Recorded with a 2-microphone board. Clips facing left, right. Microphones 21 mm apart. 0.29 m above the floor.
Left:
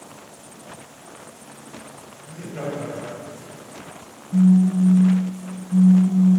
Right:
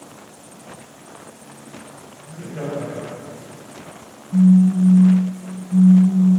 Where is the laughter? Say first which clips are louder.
Right 1 dB; 25° left (ahead or behind), 1.4 m; by 3.5 s 20° left (ahead or behind), 2 m.